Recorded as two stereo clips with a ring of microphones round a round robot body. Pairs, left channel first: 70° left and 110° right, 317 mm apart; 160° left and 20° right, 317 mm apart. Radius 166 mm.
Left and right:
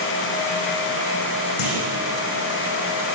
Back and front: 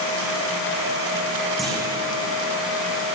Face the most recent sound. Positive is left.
turn(degrees=70)